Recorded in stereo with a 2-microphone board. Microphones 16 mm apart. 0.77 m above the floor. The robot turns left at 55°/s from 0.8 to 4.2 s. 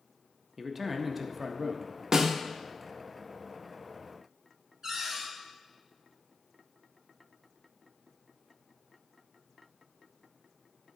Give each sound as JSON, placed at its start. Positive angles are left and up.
{"t": 0.6, "sound": "a man speaking", "side_deg": -5, "distance_m": 0.5}
{"t": 2.1, "sound": "a snare drum", "side_deg": -40, "distance_m": 0.5}
{"t": 4.8, "sound": "a cupboard door", "side_deg": -40, "distance_m": 2.0}